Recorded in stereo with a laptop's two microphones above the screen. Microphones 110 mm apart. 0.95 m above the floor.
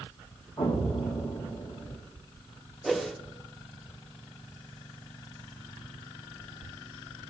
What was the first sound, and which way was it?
An explosion, 45° left (ahead or behind).